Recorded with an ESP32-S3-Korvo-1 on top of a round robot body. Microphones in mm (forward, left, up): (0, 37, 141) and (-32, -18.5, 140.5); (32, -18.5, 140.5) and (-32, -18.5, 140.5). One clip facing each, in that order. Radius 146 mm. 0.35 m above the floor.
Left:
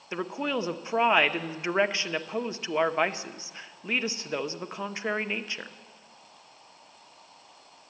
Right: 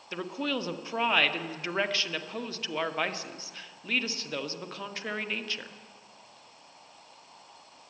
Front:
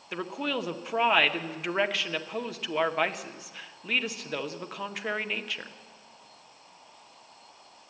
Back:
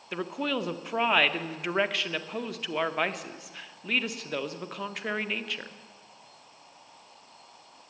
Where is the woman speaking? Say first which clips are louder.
Left 2 dB, back 1 dB; 90° left, 0.8 m.